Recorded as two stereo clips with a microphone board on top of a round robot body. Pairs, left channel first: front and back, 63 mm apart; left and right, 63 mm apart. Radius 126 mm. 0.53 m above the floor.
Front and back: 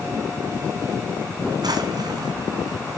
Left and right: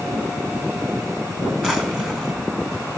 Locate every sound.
1.6 s a drawer: 170° right, 2.5 m